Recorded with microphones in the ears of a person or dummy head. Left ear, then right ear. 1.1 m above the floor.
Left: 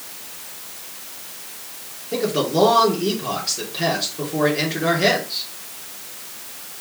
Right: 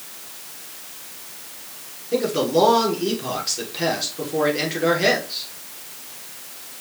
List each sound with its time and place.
2.1 s a man speaking: 15° right (ahead or behind), 3 m